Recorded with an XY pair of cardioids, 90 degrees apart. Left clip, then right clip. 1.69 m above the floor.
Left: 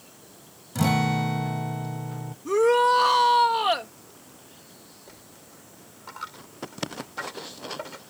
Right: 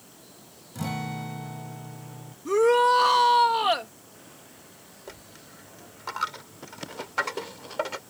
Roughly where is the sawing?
I don't hear sawing.